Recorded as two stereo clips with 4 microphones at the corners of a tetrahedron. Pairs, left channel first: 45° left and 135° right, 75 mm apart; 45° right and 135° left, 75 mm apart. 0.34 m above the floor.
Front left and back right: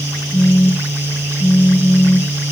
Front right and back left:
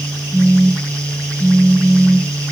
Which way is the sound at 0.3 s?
35° right.